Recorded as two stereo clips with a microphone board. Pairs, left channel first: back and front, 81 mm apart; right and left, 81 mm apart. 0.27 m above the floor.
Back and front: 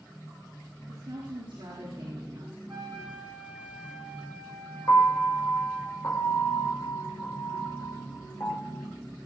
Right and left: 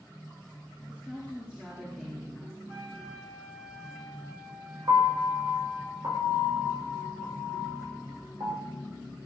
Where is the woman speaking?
15° left, 4.5 m; by 2.6 s 5° left, 4 m.